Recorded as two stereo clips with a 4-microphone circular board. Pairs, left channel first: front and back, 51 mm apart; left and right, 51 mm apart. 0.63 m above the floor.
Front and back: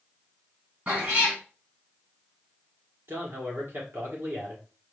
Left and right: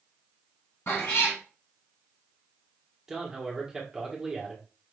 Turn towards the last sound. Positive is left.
turn(degrees=-165)